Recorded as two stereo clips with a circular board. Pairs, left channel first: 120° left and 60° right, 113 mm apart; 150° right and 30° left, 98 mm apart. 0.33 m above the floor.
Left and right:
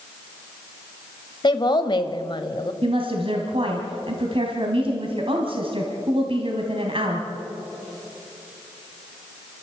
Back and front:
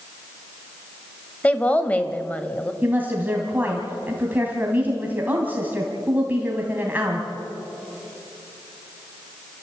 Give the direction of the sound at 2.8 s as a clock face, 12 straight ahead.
1 o'clock.